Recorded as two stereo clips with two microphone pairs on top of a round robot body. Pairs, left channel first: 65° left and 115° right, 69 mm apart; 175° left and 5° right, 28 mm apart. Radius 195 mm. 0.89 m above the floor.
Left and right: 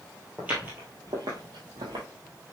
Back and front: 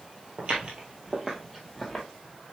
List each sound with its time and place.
0.4 s footsteps: 40° right, 1.2 m; by 2.0 s 95° right, 1.6 m